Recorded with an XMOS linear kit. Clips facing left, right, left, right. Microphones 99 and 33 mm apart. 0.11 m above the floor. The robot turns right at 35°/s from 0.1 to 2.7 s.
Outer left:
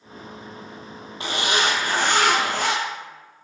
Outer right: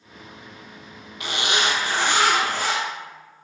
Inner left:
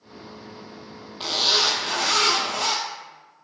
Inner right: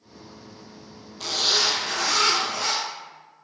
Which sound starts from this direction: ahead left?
A zipper, at 1.2 s.